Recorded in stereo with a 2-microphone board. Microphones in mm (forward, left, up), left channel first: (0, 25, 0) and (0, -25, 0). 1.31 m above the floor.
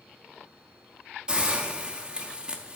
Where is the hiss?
20° right (ahead or behind), 0.8 m.